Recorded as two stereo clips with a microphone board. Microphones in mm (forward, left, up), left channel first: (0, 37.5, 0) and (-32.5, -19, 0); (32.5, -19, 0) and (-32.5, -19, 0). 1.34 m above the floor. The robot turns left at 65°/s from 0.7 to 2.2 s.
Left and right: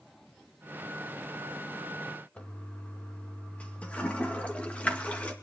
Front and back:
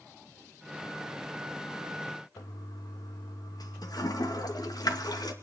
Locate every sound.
2.4 s a toilet flushing: 10° right, 2 m